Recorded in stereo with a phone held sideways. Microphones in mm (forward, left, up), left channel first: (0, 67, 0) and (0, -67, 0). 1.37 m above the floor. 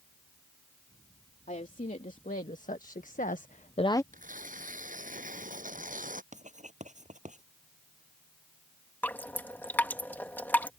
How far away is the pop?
No pop in this recording.